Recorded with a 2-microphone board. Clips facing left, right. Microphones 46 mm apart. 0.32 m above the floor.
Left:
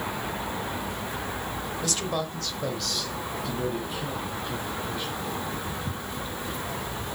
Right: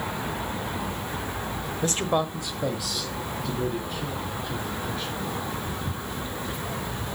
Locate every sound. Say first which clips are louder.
1.8 s a man speaking: right 6 dB; 35° right (ahead or behind), 1.2 m; by 5.2 s 10° left (ahead or behind), 5 m